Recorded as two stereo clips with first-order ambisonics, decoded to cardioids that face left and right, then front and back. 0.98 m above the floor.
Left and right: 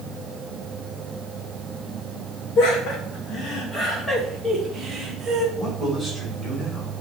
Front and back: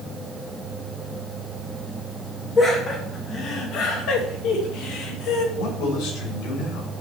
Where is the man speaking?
Straight ahead, 3.5 m.